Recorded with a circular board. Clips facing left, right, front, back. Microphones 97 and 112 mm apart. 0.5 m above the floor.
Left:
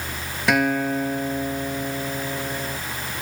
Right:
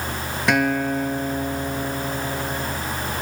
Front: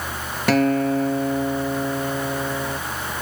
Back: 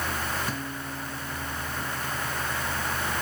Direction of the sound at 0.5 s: Straight ahead.